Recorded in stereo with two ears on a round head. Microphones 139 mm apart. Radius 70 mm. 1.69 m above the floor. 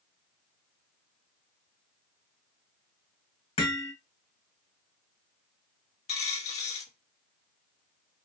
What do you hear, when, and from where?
3.6 s hammering: 35° left (ahead or behind), 1.6 m
6.1 s a dropped coin: 45° left (ahead or behind), 1.3 m